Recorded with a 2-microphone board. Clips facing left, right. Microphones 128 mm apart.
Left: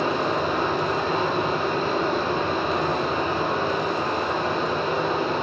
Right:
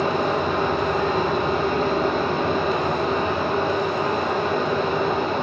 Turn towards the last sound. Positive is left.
turn(degrees=-60)  # may be behind; listen again after turning